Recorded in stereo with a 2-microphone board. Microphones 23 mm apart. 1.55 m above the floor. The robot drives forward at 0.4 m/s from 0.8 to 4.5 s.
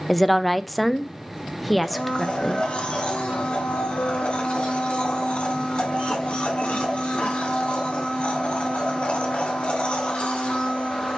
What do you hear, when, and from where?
0.1 s a woman speaking: 5° left (ahead or behind), 0.6 m; by 2.6 s centre (ahead or behind), 1.2 m
1.8 s a blender: 50° left (ahead or behind), 2.5 m; by 11.2 s 55° left (ahead or behind), 2.5 m